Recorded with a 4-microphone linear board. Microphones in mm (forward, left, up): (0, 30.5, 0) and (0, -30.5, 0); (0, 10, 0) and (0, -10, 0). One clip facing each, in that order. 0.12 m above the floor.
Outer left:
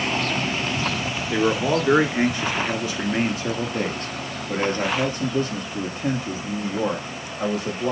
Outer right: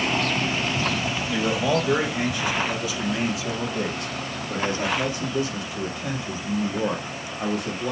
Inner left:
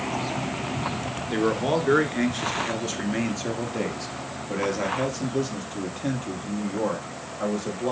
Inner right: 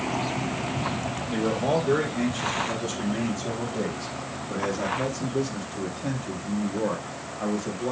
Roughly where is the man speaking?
Left.